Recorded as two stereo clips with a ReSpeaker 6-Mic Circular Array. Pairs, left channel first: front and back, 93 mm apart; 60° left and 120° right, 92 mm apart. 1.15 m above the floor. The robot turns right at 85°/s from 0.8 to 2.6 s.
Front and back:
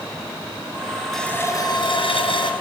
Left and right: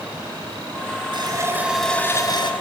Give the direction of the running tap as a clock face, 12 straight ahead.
3 o'clock.